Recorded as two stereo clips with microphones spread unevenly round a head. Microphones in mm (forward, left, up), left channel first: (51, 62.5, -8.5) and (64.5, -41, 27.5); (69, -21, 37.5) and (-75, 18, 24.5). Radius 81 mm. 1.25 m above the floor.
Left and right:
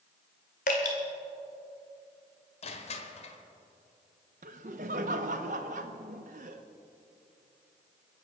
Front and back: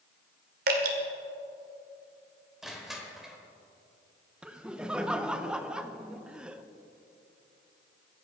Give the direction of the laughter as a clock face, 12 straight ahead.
4 o'clock.